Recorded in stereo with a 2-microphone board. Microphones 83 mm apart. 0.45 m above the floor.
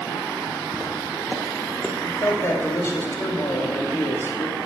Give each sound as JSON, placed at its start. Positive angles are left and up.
{"t": 0.7, "sound": "footsteps", "side_deg": -10, "distance_m": 1.1}
{"t": 2.0, "sound": "a man speaking", "side_deg": 35, "distance_m": 1.8}